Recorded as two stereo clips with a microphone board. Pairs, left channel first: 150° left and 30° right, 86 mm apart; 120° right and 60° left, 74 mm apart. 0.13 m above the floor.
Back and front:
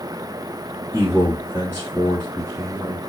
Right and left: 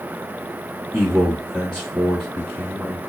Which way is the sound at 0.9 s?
45° right.